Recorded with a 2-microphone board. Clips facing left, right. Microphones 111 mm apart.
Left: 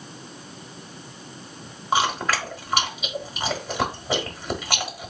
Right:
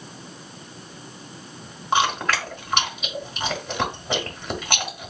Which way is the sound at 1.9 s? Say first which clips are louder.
Right 1 dB; 5° left (ahead or behind).